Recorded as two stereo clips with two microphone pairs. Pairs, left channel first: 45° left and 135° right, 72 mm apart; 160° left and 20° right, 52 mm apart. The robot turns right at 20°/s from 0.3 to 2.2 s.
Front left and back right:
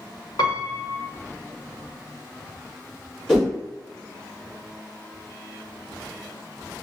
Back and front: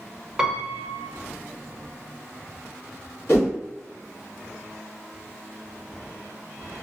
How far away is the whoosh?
About 1.8 m.